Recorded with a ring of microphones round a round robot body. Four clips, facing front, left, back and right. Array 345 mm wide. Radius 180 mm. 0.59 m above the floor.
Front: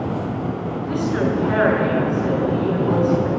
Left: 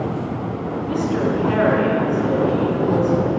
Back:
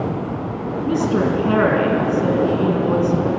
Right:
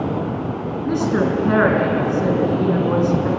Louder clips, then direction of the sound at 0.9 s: Right 2 dB, back 3 dB; 140° right.